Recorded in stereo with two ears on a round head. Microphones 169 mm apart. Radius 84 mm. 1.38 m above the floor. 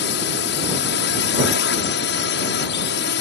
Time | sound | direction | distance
0.0 | a drone | 65° left (ahead or behind) | ?